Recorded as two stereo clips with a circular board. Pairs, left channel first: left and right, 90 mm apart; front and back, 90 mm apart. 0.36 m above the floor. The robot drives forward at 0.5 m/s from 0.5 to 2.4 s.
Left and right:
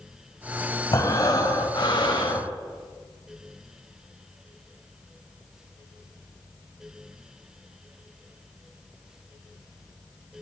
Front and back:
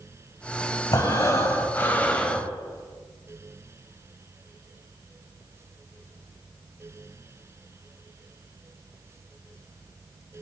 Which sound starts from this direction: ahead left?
Breathing, at 0.9 s.